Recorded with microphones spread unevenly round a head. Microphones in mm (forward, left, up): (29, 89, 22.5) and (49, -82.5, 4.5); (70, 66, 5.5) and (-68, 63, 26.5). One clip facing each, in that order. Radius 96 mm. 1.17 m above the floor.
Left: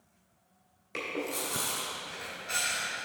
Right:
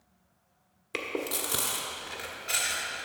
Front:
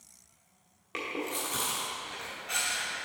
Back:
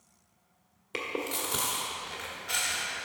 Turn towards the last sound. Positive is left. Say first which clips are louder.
# right 2 dB, back 1 dB
turn(degrees=-120)